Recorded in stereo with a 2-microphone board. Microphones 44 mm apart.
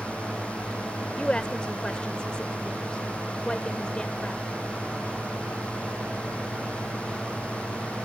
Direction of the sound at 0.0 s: 30° left (ahead or behind).